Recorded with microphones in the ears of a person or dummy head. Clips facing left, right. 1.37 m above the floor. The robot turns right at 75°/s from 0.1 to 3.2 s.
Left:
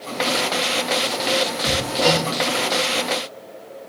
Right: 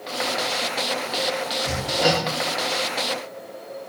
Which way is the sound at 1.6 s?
15° left (ahead or behind).